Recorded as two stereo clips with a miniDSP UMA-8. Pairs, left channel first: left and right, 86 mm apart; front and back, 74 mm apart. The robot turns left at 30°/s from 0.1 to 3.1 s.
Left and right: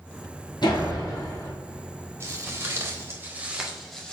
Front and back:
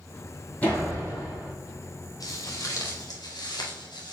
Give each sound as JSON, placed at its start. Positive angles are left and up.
{"t": 0.6, "sound": "a door slam", "azimuth_deg": 70, "distance_m": 3.0}
{"t": 2.2, "sound": "footsteps", "azimuth_deg": -30, "distance_m": 2.5}